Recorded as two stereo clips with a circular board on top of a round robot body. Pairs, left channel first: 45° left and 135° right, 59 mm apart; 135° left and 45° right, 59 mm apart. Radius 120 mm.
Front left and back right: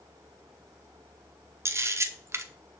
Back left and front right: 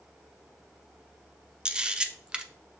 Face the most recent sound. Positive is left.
turn(degrees=-115)